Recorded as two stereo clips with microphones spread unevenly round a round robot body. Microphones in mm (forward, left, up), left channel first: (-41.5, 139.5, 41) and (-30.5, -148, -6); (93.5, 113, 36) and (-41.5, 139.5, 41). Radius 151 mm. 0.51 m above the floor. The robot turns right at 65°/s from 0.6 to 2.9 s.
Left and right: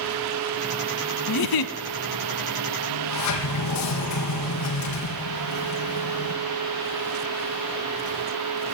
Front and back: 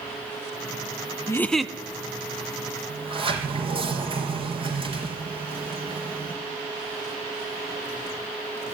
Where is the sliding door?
115° left, 3.5 m; by 6.4 s 120° left, 3.5 m.